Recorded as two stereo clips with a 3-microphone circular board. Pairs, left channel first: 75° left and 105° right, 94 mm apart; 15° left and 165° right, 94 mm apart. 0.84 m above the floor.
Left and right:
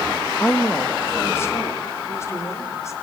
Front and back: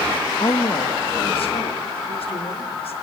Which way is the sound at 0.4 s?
5° left.